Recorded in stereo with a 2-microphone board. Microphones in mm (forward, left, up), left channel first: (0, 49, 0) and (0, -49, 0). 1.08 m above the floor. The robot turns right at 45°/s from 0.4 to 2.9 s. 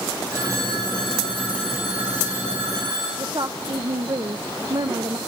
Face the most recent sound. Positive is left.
turn(degrees=-50)  # may be behind; listen again after turning